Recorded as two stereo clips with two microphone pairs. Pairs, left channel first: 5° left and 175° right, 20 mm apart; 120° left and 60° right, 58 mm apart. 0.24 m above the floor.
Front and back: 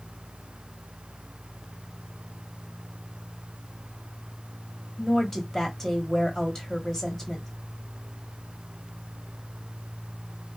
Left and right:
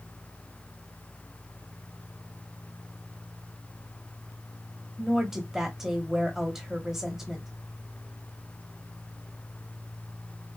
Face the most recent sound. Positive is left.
turn(degrees=5)